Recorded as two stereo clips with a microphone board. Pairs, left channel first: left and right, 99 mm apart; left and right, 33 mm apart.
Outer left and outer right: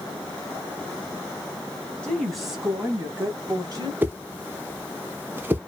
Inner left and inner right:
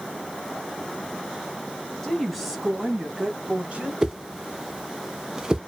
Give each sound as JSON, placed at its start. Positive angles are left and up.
{"t": 2.0, "sound": "a woman speaking", "side_deg": 10, "distance_m": 1.2}
{"t": 4.0, "sound": "a whoosh", "side_deg": -20, "distance_m": 0.6}